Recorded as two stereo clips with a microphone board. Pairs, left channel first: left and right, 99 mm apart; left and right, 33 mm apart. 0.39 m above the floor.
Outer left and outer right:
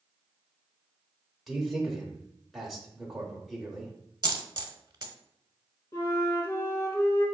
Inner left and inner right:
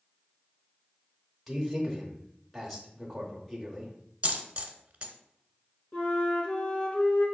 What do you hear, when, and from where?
1.5 s a man speaking: centre (ahead or behind), 0.8 m
4.2 s a dropped coin: 45° right (ahead or behind), 0.7 m
5.9 s a flute: 35° left (ahead or behind), 1.6 m